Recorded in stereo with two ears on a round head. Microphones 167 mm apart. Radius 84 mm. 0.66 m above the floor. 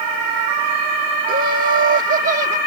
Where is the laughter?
45° right (ahead or behind).